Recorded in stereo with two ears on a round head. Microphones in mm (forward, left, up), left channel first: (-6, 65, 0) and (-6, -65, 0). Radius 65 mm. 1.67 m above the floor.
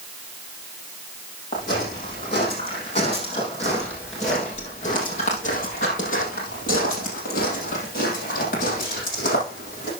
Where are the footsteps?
30° left (ahead or behind), 4 m; by 9.9 s 65° left (ahead or behind), 4 m.